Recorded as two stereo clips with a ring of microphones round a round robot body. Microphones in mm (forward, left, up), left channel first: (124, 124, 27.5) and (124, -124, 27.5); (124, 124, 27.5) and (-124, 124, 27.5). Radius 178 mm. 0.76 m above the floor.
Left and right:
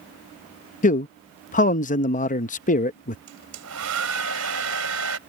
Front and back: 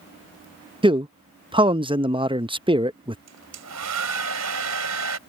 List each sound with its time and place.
0.8 s a man speaking: 125° left
3.3 s a hair dryer: 135° right